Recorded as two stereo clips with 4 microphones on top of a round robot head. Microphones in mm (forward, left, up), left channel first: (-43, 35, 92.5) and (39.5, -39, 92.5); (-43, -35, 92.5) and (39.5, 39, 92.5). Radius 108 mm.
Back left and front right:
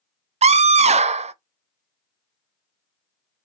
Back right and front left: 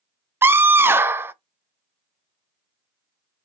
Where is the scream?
25° right, 0.6 m.